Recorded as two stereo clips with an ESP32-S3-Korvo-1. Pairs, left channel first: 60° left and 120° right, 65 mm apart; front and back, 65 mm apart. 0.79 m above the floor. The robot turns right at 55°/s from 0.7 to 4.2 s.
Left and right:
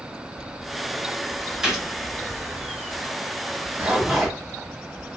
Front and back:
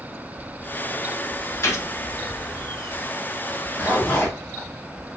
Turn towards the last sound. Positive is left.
turn(degrees=-40)